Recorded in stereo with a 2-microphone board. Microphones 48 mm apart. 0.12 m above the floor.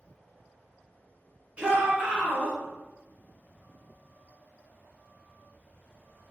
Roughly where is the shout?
Right.